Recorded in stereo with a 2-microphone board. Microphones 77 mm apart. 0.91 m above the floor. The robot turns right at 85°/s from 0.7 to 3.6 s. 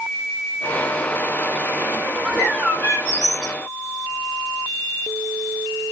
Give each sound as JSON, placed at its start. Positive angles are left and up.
{"t": 2.2, "sound": "a bird", "azimuth_deg": -5, "distance_m": 1.1}